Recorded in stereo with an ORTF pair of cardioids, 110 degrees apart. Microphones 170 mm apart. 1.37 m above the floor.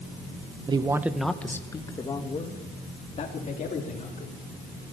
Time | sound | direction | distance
0.7 | a man speaking | 30° right | 1.5 m